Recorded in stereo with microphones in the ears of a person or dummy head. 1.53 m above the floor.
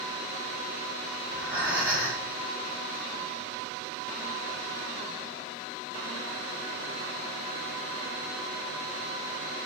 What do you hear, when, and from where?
1.2 s breathing: 5° right (ahead or behind), 0.7 m